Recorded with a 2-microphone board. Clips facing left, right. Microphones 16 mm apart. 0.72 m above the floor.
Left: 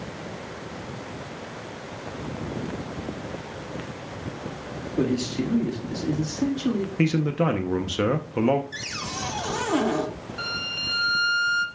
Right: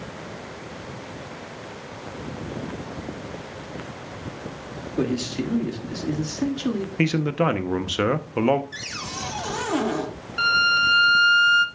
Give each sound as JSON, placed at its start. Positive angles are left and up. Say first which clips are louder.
{"t": 5.0, "sound": "a man speaking", "louder": "even", "side_deg": -15, "distance_m": 1.5}
{"t": 7.0, "sound": "a man speaking", "louder": "right 2 dB", "side_deg": -20, "distance_m": 0.6}
{"t": 8.7, "sound": "a cupboard door", "louder": "even", "side_deg": 0, "distance_m": 1.2}
{"t": 10.4, "sound": "a violin", "louder": "right 11 dB", "side_deg": -45, "distance_m": 1.3}